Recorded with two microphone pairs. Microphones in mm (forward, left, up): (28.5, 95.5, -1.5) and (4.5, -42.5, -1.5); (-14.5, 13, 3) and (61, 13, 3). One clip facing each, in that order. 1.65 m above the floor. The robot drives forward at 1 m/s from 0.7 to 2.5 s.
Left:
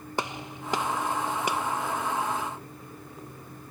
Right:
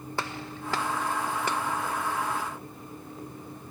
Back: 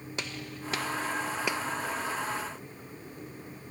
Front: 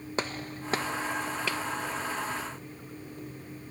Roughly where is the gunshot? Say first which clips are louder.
Left 2 dB, front 6 dB; ahead.